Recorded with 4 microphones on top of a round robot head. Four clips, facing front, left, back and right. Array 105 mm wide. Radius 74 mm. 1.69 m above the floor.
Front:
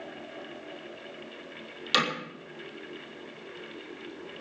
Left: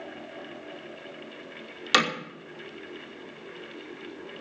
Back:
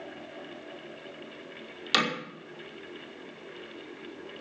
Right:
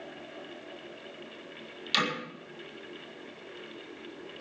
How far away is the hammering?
About 5 m.